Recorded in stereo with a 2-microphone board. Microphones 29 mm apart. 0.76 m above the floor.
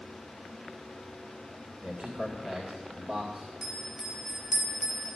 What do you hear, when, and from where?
1.8 s a man speaking: 35° right (ahead or behind), 2 m
3.6 s a bell: 10° right (ahead or behind), 3 m